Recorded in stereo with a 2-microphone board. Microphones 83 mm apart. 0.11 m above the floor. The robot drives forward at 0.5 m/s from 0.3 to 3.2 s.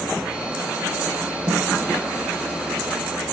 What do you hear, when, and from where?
1.5 s a snare drum: 35° right (ahead or behind), 4.5 m